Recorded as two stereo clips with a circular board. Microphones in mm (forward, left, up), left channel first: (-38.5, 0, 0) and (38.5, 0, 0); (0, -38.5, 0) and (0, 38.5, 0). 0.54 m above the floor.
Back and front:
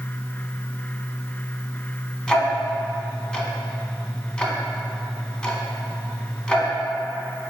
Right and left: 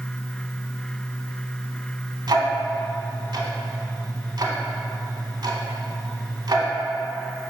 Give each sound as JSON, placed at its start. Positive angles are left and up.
{"t": 2.3, "sound": "ticking", "azimuth_deg": 105, "distance_m": 0.7}